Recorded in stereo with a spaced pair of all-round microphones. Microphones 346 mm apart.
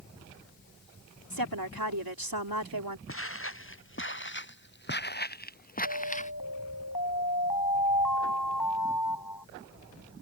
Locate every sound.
1.3 s a woman speaking: 85° right
3.1 s footsteps: 40° left (ahead or behind); by 6.3 s 20° left (ahead or behind)
5.8 s an alarm: 80° left